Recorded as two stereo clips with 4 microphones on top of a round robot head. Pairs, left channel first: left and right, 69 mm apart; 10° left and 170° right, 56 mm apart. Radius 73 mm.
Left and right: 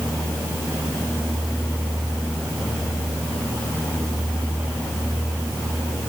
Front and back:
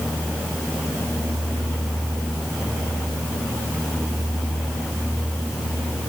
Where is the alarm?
I don't hear an alarm.